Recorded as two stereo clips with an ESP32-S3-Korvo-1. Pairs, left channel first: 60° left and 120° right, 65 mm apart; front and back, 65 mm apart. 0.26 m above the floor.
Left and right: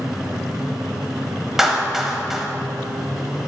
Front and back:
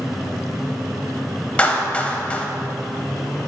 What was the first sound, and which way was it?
A clap, 40° right.